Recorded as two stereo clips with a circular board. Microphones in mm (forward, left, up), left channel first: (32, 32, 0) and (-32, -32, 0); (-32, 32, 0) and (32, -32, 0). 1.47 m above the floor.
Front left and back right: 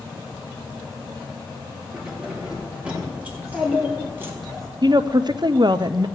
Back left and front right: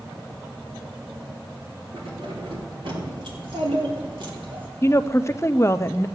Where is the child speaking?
45° right, 3 m.